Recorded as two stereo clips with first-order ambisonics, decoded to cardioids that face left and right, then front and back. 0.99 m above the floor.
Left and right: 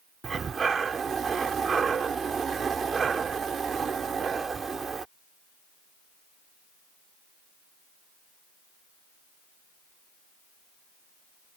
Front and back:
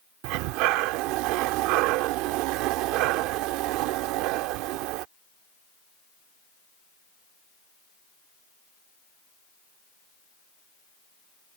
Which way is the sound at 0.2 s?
165° right.